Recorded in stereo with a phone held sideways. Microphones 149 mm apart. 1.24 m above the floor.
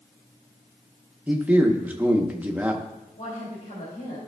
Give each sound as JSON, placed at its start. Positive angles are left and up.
{"t": 1.3, "sound": "a man speaking", "side_deg": -10, "distance_m": 0.9}
{"t": 3.2, "sound": "a woman speaking", "side_deg": 70, "distance_m": 2.5}